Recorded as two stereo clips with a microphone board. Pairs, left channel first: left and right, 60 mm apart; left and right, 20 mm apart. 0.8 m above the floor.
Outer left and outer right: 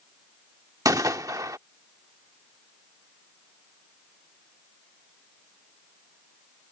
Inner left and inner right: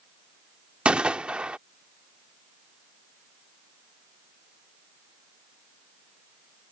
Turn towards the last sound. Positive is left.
turn(degrees=-80)